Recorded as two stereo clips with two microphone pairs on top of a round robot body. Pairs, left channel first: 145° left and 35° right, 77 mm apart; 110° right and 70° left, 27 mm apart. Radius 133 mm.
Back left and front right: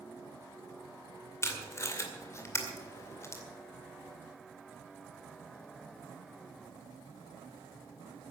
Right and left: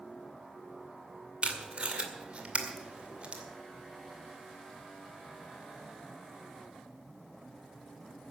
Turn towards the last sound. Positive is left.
turn(degrees=95)